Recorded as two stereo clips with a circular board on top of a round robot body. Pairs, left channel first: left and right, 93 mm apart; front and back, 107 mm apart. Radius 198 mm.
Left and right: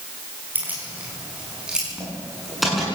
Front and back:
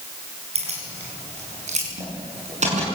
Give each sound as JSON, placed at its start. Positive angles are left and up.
{"t": 0.6, "sound": "keys jangling", "azimuth_deg": -160, "distance_m": 5.5}